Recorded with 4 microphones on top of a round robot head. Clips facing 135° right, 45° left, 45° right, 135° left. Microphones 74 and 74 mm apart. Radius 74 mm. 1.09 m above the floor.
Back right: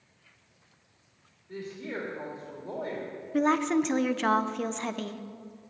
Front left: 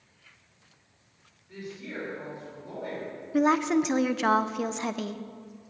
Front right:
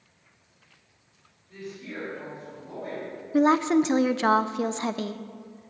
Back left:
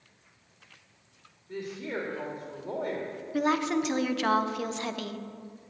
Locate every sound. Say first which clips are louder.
1.5 s a woman speaking: back right 2 dB, back left 4 dB; 170° left, 2.5 m
3.3 s a woman speaking: front left 2 dB, front right 7 dB; 35° right, 0.5 m